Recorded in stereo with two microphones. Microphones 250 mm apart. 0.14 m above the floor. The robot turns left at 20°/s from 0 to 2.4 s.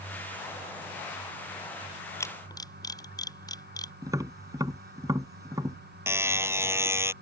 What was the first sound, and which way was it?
A camera shutter, 10° left (ahead or behind).